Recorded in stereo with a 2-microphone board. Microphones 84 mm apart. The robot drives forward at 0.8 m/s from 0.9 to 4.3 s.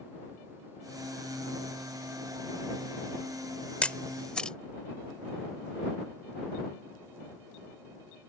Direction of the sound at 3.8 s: 15° left (ahead or behind).